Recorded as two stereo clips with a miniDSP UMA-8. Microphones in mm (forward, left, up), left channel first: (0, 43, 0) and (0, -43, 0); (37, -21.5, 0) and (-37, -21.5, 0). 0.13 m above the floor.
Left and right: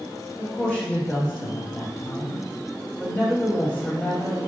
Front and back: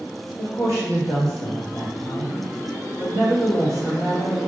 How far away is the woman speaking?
About 1.8 m.